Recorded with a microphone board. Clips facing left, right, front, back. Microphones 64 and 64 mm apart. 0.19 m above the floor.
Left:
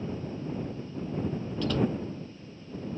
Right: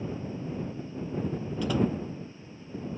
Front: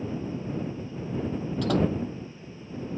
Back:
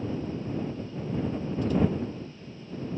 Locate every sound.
1.6 s a door slam: 10° right